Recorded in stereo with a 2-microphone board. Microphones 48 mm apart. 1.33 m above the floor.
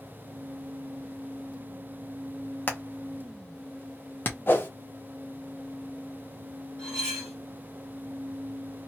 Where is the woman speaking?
No woman speaking in this recording.